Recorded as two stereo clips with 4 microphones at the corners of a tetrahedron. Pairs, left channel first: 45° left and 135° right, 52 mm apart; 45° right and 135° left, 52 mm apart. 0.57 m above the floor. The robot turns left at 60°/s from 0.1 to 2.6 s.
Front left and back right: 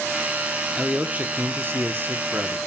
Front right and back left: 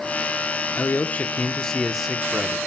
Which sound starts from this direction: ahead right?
A man speaking, at 0.8 s.